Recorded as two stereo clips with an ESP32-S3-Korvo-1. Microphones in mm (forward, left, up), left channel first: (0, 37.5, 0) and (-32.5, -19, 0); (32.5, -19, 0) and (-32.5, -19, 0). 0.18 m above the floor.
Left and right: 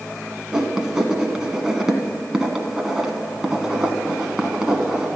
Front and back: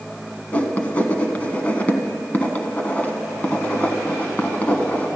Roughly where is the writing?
Ahead right.